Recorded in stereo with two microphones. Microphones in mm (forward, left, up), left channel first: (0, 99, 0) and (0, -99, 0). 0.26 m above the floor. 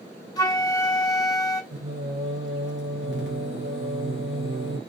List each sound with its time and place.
0.4 s a flute: 20° left (ahead or behind), 0.8 m
1.7 s singing: 75° right (ahead or behind), 1.7 m